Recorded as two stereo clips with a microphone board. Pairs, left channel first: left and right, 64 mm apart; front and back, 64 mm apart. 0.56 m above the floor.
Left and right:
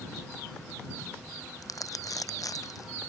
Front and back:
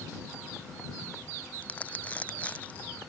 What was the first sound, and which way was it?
Crumpling, 65° left.